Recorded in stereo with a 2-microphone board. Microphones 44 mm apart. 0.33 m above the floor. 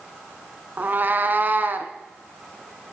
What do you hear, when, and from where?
0.8 s a cat meowing: 40° right (ahead or behind), 1.0 m